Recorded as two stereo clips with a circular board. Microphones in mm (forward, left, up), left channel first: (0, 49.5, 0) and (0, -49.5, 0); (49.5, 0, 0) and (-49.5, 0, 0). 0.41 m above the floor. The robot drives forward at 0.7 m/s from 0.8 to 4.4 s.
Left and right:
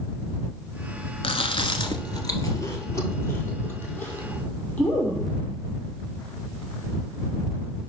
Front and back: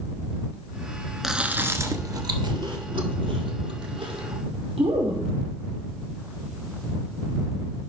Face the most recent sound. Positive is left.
turn(degrees=165)